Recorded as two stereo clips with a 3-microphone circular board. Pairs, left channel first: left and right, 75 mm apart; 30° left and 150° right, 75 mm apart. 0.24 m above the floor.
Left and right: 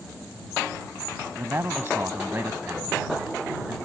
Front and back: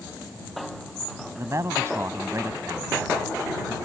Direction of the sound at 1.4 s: 130° right.